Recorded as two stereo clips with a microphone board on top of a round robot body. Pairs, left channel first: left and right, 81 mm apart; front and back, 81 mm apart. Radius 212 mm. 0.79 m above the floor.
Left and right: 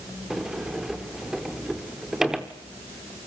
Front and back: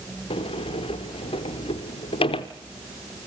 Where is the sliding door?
5° right, 0.6 m.